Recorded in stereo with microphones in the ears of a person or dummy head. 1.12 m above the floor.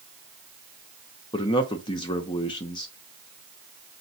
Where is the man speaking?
30° left (ahead or behind), 0.6 m.